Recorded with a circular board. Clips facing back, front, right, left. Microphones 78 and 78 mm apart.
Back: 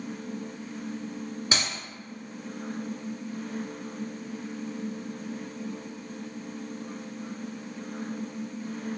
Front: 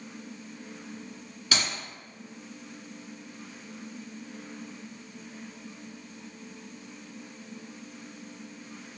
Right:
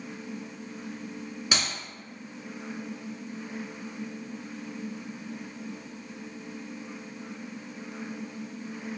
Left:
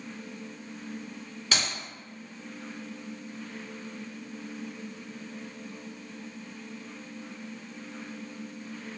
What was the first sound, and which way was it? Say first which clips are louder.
A clap: front 1 dB, even; 155° right.